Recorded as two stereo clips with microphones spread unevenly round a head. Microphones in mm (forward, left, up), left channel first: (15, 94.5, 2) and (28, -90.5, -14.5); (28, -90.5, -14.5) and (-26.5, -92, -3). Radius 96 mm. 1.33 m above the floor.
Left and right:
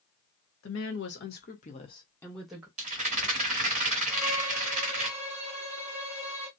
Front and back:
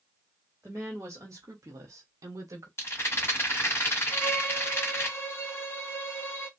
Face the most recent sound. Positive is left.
turn(degrees=-30)